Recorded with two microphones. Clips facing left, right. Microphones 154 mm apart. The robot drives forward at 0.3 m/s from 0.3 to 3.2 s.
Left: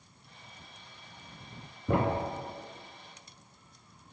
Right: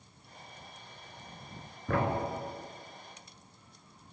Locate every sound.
1.9 s a thud: 20° left (ahead or behind), 0.7 m; by 4.1 s 25° left (ahead or behind), 0.6 m